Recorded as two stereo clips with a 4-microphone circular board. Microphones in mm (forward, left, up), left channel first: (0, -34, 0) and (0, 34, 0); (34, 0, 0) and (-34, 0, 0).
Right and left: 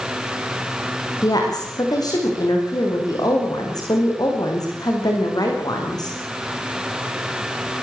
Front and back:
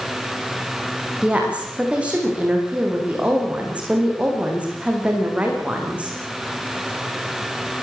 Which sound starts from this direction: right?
A woman speaking, at 1.2 s.